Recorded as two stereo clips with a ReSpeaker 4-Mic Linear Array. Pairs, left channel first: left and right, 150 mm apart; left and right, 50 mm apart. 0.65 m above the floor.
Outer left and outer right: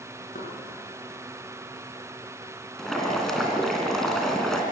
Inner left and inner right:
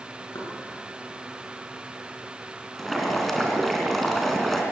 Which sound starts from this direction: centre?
Boiling, at 2.8 s.